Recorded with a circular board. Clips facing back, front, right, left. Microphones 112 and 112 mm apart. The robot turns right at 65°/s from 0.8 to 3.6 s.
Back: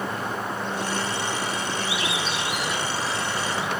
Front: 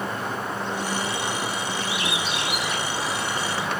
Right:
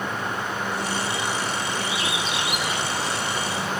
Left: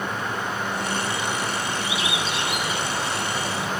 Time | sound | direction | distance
1.8 | a bird | 55° right | 5 m